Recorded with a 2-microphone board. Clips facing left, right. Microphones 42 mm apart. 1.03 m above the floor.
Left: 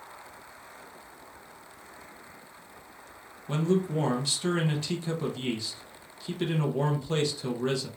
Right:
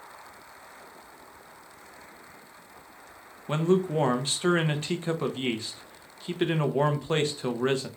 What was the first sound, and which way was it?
A man speaking, 40° right (ahead or behind).